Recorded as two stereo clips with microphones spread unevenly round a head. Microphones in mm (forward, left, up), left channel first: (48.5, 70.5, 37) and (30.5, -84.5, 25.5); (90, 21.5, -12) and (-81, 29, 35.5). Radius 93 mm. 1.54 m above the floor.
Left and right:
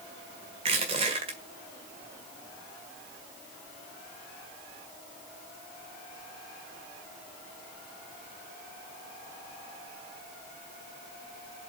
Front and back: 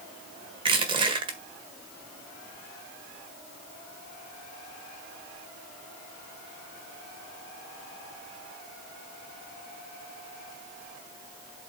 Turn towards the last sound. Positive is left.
turn(degrees=-150)